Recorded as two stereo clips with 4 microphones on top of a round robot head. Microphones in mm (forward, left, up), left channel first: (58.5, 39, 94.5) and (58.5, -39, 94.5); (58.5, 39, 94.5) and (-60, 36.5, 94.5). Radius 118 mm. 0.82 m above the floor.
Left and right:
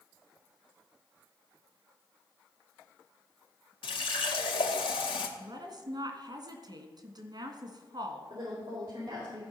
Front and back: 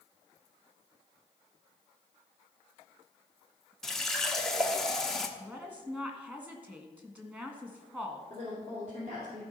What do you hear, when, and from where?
3.8 s a running tap: 85° left, 1.1 m
5.4 s a woman speaking: 105° right, 1.6 m
8.3 s a woman speaking: 150° right, 3 m